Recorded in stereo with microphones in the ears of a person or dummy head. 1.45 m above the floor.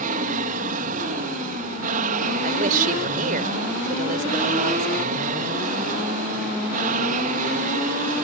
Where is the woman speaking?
40° right (ahead or behind).